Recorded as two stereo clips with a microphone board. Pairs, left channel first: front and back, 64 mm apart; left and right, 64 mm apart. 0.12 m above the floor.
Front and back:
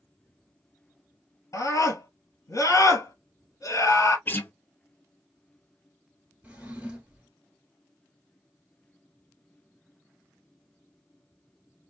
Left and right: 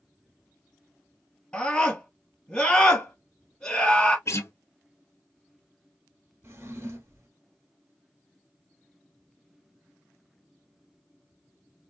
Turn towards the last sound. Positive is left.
turn(degrees=-115)